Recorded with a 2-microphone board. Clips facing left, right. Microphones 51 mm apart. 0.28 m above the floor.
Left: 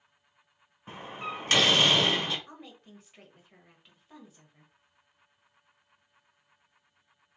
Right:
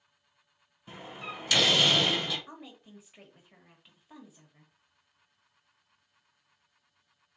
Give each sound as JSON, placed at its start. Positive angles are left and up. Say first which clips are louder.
{"t": 0.9, "sound": "a door slam", "louder": "left 4 dB", "side_deg": 45, "distance_m": 1.5}
{"t": 2.5, "sound": "a woman speaking", "louder": "right 1 dB", "side_deg": -5, "distance_m": 1.0}